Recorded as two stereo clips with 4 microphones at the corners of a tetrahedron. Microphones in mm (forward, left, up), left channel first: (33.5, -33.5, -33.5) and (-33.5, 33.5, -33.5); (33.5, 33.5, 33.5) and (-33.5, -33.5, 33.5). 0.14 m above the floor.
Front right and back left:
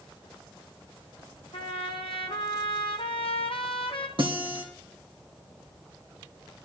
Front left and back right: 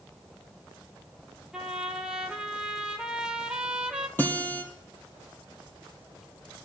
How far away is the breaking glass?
I don't hear breaking glass.